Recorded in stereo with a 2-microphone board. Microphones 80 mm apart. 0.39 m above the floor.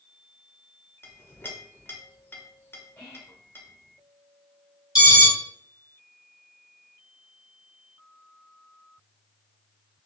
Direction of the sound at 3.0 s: 35° left (ahead or behind).